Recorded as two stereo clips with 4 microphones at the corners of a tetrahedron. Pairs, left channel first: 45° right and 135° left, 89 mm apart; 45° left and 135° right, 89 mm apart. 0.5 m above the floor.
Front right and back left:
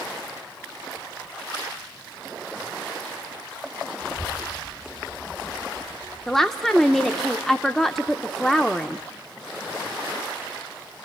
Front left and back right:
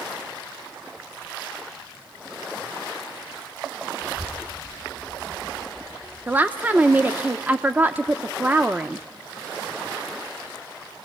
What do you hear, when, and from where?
4.0 s a child speaking: 170° left, 1.2 m; by 6.4 s 165° left, 4 m
6.3 s a woman speaking: 120° right, 0.6 m